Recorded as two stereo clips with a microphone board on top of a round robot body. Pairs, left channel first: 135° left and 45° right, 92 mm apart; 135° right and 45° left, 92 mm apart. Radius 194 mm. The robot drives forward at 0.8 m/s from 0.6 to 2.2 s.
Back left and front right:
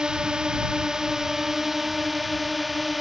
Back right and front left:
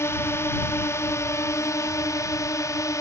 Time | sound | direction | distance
0.0 | a drone | 120° right | ?